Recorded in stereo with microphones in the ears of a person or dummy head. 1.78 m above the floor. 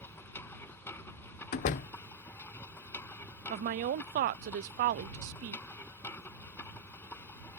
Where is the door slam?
45° left (ahead or behind).